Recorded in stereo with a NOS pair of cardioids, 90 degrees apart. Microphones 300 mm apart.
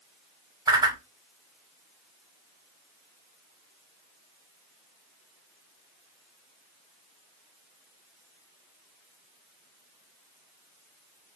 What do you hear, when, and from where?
0.7 s a whoosh: 15° right, 1.0 m